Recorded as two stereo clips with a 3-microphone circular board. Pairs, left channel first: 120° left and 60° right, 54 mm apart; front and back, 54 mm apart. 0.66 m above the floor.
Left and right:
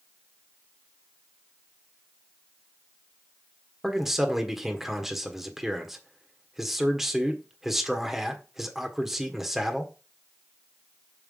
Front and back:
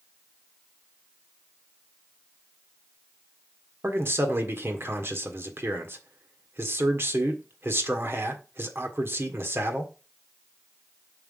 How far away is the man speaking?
About 1.5 m.